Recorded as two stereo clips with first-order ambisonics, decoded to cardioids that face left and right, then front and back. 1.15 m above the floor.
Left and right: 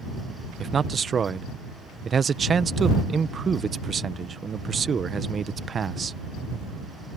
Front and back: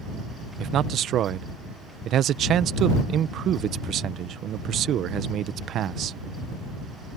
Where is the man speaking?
155° right.